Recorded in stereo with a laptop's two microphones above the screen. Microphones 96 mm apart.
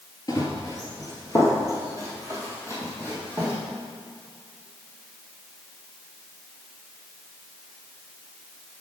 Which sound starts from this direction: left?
Running footsteps, at 0.3 s.